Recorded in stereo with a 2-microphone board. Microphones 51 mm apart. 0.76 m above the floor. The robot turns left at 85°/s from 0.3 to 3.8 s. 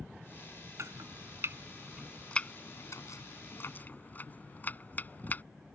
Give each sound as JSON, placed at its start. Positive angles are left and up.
{"t": 0.8, "sound": "chopping", "side_deg": -70}